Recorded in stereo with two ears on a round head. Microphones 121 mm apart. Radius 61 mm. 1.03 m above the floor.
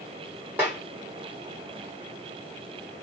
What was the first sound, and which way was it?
A snare drum, 15° right (ahead or behind).